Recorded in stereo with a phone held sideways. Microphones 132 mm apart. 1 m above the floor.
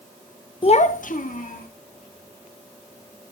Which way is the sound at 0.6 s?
40° left (ahead or behind).